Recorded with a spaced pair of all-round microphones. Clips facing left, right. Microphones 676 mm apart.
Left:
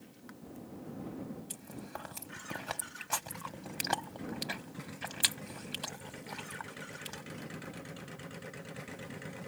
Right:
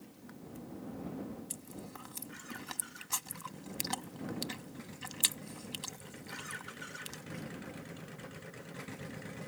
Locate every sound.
1.5 s chewing: 75° left (ahead or behind)